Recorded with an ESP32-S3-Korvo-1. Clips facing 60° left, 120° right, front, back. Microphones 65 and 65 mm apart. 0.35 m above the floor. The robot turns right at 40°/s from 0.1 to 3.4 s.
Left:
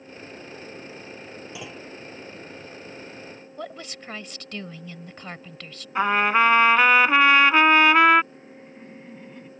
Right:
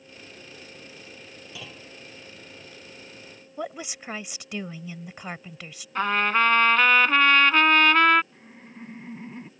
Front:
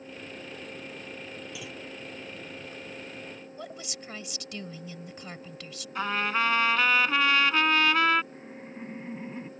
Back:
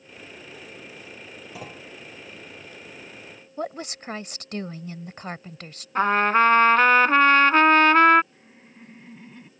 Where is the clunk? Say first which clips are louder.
Left 2 dB, back 1 dB; 130° left; by 1.9 s 145° left.